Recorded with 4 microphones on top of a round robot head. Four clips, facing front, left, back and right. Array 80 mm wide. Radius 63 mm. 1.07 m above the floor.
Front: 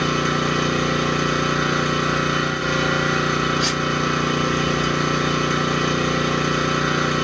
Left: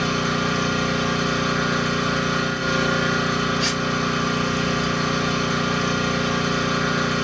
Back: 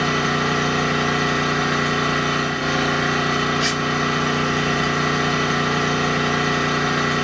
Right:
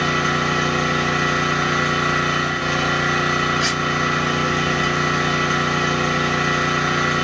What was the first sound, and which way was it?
An engine running, 145° right.